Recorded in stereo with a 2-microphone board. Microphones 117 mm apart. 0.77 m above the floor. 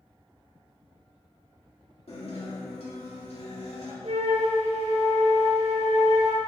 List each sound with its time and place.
2.1 s a guitar: 65° left (ahead or behind), 1.8 m
4.0 s a flute: 75° right (ahead or behind), 1.1 m